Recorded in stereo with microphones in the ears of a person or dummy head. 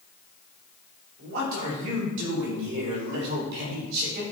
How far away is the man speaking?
About 4 m.